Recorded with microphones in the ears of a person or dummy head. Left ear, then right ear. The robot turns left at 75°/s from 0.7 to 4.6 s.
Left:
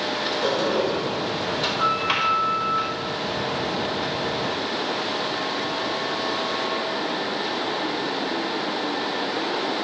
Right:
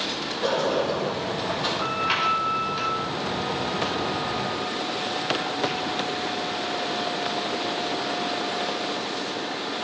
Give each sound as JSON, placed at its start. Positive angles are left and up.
{"t": 0.4, "sound": "a sliding door", "azimuth_deg": 125, "distance_m": 4.5}